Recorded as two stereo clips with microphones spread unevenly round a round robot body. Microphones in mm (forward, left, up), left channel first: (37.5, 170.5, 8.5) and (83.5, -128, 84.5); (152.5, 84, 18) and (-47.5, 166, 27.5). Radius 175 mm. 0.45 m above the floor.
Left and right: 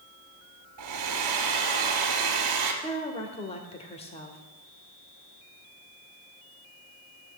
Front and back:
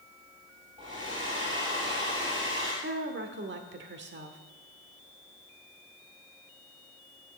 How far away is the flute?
I don't hear a flute.